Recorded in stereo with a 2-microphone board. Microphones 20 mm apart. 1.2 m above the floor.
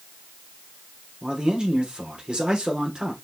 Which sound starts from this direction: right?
A man speaking, at 1.2 s.